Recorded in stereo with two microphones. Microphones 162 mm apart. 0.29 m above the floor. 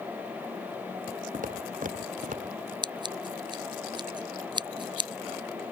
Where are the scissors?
30° right (ahead or behind).